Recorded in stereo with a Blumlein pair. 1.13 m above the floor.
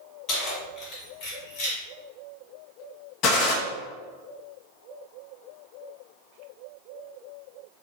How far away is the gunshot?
About 0.8 m.